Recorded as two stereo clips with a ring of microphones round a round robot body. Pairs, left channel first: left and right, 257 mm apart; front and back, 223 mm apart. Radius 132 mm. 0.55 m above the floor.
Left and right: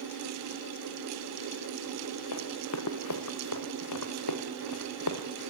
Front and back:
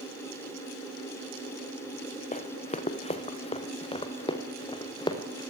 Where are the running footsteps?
60° left, 3 m; by 5.5 s 70° left, 4.5 m.